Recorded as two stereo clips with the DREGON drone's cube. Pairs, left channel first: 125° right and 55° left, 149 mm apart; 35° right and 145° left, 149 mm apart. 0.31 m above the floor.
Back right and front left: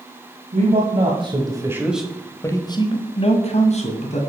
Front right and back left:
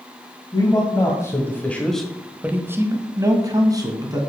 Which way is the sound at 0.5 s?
25° left.